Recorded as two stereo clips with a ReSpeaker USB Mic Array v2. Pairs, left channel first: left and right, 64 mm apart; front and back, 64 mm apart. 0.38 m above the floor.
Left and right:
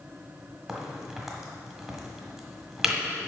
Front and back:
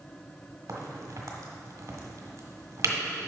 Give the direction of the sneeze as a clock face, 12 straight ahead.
No sneeze in this recording.